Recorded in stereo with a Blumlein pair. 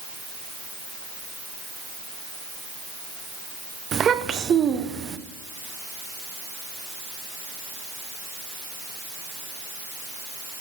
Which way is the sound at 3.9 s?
25° right.